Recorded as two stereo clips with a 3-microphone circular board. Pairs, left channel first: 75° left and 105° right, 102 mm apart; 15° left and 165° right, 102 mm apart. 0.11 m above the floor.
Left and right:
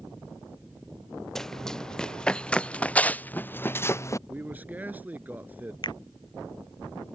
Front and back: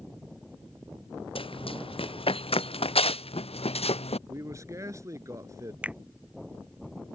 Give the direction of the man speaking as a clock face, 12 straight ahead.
5 o'clock.